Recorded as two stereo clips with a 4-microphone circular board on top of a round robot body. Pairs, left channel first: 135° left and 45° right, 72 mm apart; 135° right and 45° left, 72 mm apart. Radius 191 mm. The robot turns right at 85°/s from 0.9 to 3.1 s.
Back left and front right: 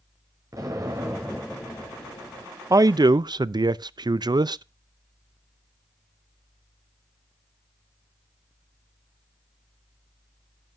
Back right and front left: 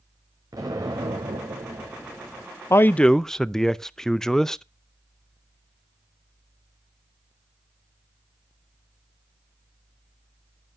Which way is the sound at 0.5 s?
Straight ahead.